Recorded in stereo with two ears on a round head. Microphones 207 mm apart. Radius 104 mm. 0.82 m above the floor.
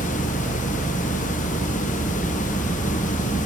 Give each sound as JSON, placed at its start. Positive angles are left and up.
{"t": 0.0, "sound": "an engine running", "side_deg": 10}